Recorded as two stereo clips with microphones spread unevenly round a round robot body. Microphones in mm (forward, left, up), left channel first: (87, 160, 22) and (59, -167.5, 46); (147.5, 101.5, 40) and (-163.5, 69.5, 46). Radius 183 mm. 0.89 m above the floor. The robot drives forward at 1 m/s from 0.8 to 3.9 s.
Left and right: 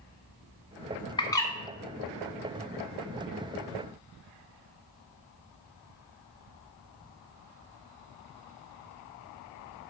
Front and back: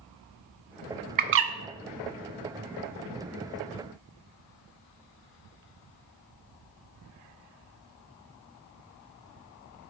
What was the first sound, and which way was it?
A bird, 140° left.